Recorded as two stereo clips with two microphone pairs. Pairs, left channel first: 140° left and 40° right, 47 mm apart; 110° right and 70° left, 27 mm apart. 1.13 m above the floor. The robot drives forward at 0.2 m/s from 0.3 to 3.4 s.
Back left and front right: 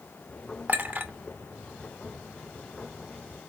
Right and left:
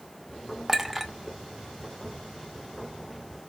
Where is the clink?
5° right, 0.7 m.